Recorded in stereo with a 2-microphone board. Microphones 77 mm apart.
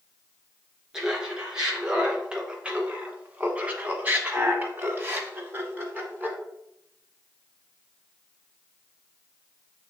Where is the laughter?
10° right (ahead or behind), 2 m; by 6.4 s 20° right (ahead or behind), 1.3 m.